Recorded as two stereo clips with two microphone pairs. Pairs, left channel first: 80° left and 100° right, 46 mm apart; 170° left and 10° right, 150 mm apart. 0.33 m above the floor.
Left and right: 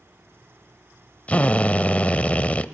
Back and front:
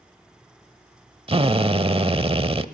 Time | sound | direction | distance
1.3 | a drill | 30° left | 0.8 m